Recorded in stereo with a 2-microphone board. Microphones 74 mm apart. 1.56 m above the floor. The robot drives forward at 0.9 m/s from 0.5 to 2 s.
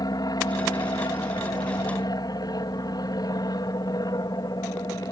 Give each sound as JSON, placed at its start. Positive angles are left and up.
{"t": 0.0, "sound": "an aircraft", "side_deg": 65}